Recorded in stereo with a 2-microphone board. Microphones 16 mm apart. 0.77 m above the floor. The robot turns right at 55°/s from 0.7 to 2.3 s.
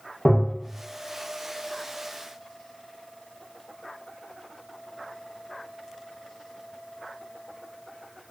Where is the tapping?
30° left (ahead or behind), 0.8 m.